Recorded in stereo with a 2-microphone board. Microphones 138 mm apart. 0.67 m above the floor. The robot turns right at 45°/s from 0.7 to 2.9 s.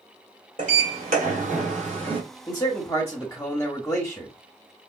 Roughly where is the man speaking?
Left.